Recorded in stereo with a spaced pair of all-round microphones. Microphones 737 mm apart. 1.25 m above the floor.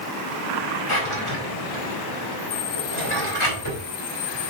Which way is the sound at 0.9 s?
40° left (ahead or behind).